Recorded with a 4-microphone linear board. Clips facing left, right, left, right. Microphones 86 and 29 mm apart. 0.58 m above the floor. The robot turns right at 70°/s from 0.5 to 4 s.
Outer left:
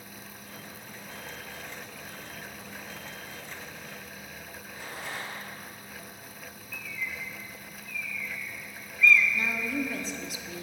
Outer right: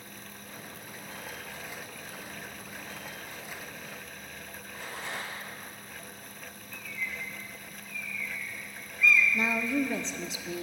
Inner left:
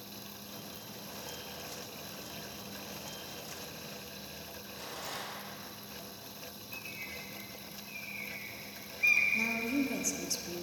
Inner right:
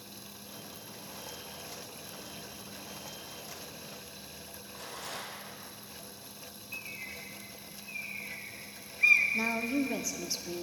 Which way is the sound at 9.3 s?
25° right (ahead or behind).